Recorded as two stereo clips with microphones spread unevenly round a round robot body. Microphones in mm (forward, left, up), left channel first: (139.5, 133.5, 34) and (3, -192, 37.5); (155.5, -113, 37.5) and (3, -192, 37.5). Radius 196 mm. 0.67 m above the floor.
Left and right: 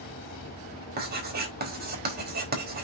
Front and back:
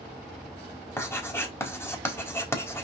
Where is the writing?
50° right, 4 m.